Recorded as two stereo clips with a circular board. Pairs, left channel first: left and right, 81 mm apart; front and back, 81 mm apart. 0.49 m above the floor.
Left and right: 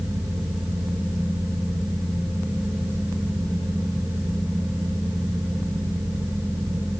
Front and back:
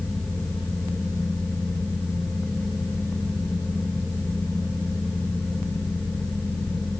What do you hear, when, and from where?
Only background noise.